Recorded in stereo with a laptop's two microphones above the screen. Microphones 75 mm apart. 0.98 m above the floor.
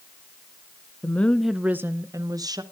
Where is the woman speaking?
25° left (ahead or behind), 0.6 m; by 2.6 s 60° right (ahead or behind), 1.0 m.